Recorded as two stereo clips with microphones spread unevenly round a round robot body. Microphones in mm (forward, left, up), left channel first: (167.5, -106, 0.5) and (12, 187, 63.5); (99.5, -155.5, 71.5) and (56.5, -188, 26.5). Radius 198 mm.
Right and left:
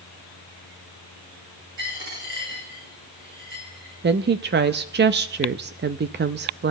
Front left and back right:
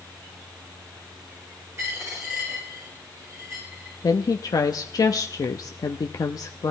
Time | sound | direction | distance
1.8 | a dropped coin | 165° left | 8 m
4.0 | a woman speaking | 75° left | 0.5 m